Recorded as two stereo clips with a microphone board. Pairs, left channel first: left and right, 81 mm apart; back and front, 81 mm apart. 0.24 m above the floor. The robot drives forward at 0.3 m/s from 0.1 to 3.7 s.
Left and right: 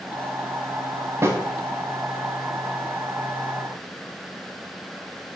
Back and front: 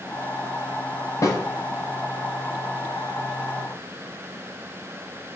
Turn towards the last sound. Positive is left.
turn(degrees=-160)